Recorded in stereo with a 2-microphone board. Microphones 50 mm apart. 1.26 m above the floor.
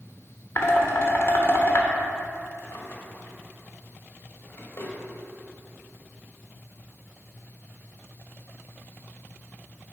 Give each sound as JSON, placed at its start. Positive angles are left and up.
{"t": 0.6, "sound": "dishes clattering", "side_deg": 50, "distance_m": 1.0}
{"t": 2.6, "sound": "a drawer", "side_deg": 55, "distance_m": 1.3}